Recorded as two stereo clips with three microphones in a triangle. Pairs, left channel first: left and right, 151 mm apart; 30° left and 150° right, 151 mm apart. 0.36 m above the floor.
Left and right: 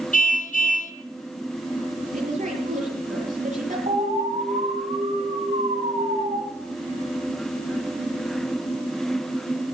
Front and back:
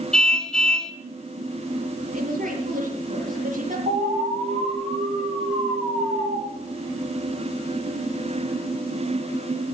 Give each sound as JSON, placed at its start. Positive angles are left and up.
{"t": 0.1, "sound": "a car horn", "azimuth_deg": 115, "distance_m": 2.0}
{"t": 2.1, "sound": "a woman speaking", "azimuth_deg": -120, "distance_m": 8.5}
{"t": 3.9, "sound": "an alarm", "azimuth_deg": -115, "distance_m": 9.5}